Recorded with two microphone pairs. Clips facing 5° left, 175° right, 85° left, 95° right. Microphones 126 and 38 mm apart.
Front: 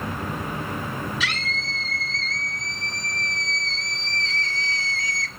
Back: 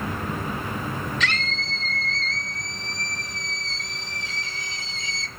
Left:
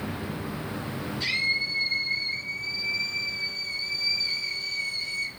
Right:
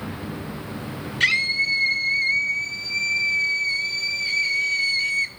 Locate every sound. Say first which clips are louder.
1.2 s a scream: back 1 dB, right 7 dB; 75° right, 4.5 m; by 5.3 s 110° right, 2 m